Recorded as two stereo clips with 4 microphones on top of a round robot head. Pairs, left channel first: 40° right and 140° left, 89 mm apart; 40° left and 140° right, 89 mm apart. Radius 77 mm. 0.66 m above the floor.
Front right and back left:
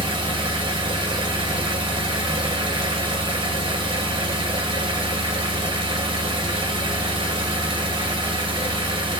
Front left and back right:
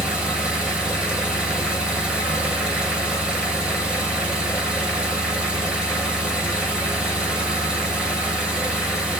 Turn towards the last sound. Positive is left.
turn(degrees=140)